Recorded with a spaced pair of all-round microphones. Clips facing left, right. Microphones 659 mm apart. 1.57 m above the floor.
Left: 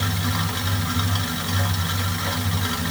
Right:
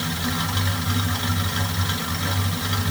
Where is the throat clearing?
No throat clearing in this recording.